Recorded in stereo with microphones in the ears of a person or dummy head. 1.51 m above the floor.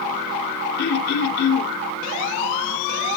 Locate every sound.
0.8 s throat clearing: 55° left (ahead or behind), 1.0 m